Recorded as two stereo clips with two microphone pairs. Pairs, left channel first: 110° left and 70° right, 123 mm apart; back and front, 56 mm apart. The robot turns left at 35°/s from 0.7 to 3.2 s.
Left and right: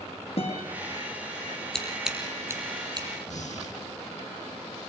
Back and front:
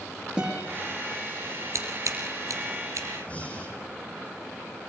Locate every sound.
0.4 s a guitar: 75° left, 7.5 m
1.7 s scissors: 25° left, 4.5 m; by 3.1 s 20° right, 4.5 m
3.3 s breathing: 115° left, 5 m